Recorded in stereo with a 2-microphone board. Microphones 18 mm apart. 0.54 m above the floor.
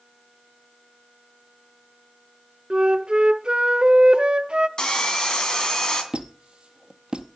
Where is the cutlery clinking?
No cutlery clinking in this recording.